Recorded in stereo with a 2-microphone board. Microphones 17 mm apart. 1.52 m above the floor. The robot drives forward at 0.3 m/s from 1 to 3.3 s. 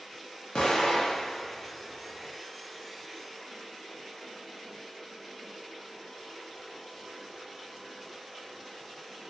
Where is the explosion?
65° left (ahead or behind), 0.6 m.